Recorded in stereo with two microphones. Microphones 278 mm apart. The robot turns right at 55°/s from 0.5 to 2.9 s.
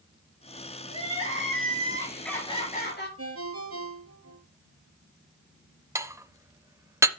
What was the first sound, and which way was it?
Crying, 70° right.